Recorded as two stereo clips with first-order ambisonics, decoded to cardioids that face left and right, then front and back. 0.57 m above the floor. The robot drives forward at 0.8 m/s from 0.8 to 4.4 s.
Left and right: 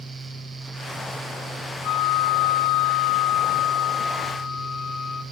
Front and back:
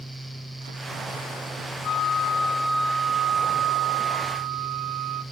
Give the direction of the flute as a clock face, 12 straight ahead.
10 o'clock.